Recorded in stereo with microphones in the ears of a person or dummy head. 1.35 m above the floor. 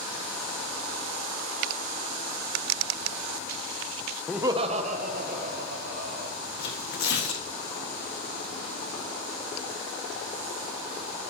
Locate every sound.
4.3 s laughter: centre (ahead or behind), 0.5 m; by 6.3 s 55° right (ahead or behind), 2.5 m
6.6 s tearing paper: 65° left (ahead or behind), 1.7 m